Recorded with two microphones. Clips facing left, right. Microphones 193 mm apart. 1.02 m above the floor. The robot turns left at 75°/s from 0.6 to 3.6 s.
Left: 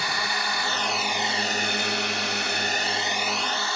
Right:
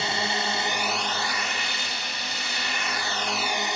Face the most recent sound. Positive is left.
turn(degrees=-20)